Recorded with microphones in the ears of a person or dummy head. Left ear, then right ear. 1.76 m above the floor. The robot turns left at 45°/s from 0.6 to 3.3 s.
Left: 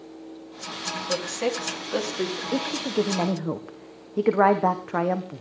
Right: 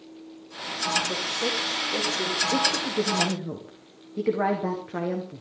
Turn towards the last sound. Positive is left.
turn(degrees=140)